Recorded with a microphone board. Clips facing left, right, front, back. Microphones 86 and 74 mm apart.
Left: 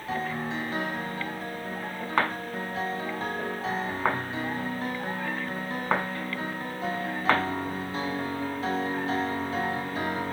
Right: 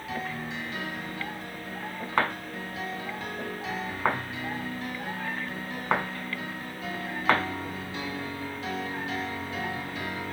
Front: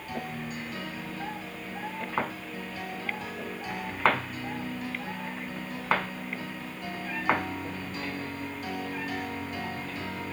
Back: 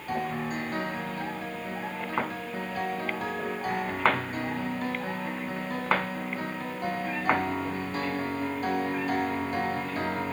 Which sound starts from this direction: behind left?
A piano, at 0.1 s.